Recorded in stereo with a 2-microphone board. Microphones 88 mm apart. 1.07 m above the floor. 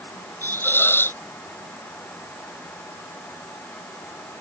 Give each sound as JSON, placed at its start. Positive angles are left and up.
{"t": 0.4, "sound": "a hiss", "side_deg": 25}